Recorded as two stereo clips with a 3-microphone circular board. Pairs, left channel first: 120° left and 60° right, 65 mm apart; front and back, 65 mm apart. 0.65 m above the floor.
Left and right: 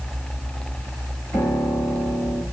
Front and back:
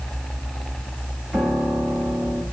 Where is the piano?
95° left, 3.5 m.